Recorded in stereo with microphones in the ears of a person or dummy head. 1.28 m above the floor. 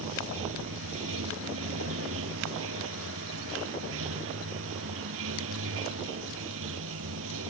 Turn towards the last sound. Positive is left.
turn(degrees=-85)